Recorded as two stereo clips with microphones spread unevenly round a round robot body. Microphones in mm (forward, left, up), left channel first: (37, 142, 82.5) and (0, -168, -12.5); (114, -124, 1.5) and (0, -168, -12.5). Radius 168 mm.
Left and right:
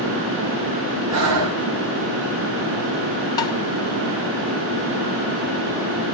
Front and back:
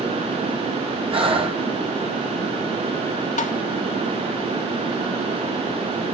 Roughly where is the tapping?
Ahead.